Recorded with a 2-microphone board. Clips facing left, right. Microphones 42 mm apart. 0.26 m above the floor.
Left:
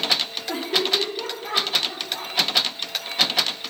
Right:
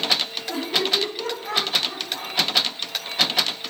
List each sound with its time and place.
0.5 s laughter: 25° left (ahead or behind), 6.5 m; by 2.3 s 20° left (ahead or behind), 9 m